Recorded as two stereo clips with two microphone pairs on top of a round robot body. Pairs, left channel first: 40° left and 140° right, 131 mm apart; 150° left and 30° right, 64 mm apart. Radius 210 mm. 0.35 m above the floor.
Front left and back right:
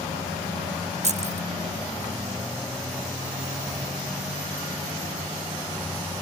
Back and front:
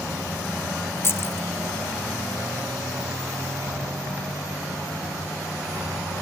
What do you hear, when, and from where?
1.0 s keys jangling: 160° right, 1.0 m